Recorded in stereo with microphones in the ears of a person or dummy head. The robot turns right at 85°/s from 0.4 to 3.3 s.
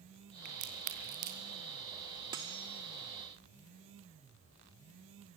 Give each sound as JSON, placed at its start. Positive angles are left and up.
{"t": 0.5, "sound": "a crack", "side_deg": -50, "distance_m": 4.0}
{"t": 2.3, "sound": "cutlery clinking", "side_deg": -15, "distance_m": 0.6}